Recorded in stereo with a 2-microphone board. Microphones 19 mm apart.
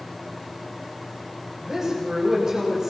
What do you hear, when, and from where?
1.6 s a woman speaking: 30° right (ahead or behind), 6.5 m; by 2.9 s 35° right (ahead or behind), 5.5 m